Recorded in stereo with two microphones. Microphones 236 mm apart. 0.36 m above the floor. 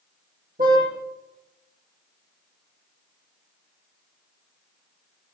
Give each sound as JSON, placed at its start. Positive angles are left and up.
{"t": 0.6, "sound": "a car horn", "side_deg": -40, "distance_m": 8.0}